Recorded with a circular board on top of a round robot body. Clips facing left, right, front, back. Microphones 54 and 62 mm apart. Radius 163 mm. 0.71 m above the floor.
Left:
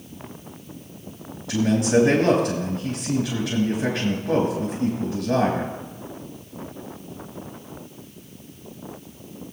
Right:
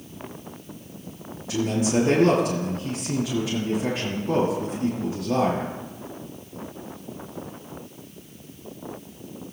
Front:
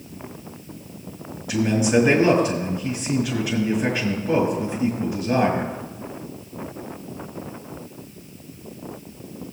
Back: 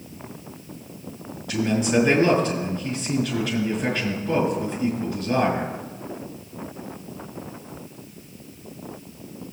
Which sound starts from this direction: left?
A man speaking, at 1.5 s.